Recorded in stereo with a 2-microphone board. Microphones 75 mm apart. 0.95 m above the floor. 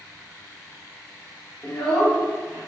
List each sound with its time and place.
1.6 s a child speaking: 10° left (ahead or behind), 1.2 m; by 2.7 s 5° left (ahead or behind), 1.8 m